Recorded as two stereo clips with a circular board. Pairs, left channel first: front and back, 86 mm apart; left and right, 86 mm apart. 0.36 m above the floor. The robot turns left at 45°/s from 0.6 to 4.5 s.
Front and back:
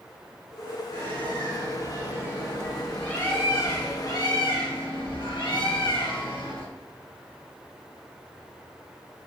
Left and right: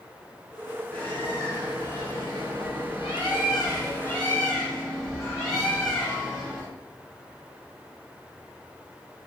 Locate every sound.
0.9 s a bird: 170° left, 3.5 m; by 6.7 s 10° left, 3.5 m